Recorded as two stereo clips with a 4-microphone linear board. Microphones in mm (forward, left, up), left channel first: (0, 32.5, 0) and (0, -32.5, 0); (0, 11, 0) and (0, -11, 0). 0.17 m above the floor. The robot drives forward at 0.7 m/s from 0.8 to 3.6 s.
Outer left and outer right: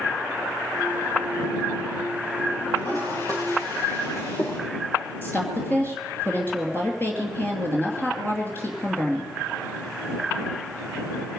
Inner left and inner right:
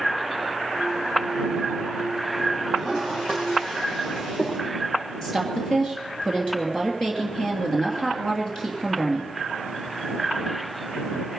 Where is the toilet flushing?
55° left (ahead or behind), 7 m.